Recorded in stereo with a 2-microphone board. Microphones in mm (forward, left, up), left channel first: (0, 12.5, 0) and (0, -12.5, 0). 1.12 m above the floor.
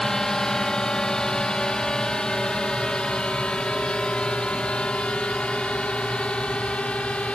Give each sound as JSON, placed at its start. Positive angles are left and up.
{"t": 0.0, "sound": "a drone", "side_deg": 25}